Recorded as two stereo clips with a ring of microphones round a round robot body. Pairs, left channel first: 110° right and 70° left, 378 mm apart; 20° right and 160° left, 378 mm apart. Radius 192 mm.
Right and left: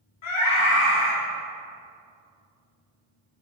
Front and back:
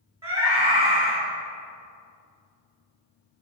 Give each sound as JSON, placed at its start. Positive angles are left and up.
{"t": 0.2, "sound": "a scream", "azimuth_deg": -125, "distance_m": 1.2}